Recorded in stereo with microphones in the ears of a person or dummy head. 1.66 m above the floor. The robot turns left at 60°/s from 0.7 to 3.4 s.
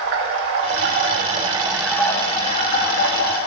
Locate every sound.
0.0 s running water: 110° right, 1.3 m; by 3.5 s 90° left, 1.3 m